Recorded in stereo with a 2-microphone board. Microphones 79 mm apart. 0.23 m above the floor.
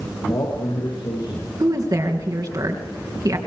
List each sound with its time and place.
0.3 s a man speaking: 50° left (ahead or behind), 7 m
1.6 s a woman speaking: 50° right (ahead or behind), 3.5 m